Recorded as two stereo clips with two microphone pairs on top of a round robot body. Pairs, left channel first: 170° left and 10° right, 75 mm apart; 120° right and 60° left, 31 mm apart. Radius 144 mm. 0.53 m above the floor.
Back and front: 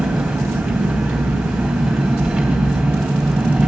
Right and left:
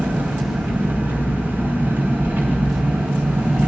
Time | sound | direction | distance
0.0 | an engine running | 80° left | 3 m